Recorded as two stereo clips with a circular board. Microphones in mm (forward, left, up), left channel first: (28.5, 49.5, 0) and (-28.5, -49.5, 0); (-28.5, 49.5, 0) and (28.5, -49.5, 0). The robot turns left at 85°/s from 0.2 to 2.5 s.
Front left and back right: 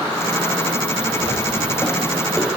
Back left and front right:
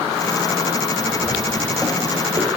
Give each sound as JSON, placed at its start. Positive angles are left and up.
{"t": 1.2, "sound": "footsteps", "azimuth_deg": 60, "distance_m": 4.5}